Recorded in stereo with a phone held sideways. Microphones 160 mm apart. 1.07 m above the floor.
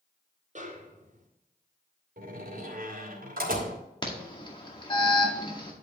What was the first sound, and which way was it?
A snare drum, 50° right (ahead or behind).